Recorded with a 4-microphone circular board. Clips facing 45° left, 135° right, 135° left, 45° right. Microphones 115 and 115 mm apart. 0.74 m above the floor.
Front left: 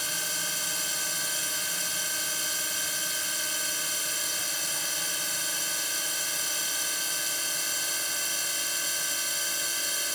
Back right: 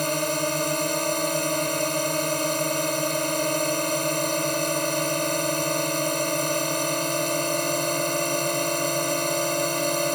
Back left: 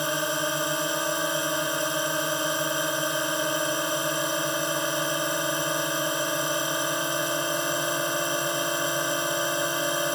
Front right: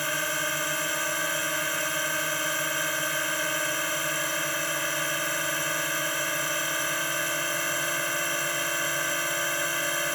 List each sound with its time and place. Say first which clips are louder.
0.0 s a drone: back right 15 dB, back left 4 dB; 155° right